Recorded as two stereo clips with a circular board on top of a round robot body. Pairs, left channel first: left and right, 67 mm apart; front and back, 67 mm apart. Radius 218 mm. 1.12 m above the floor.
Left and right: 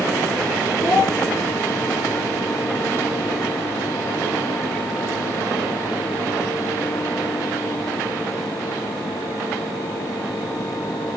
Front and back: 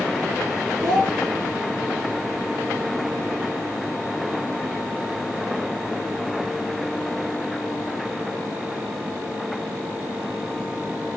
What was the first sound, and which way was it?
A child speaking, 155° left.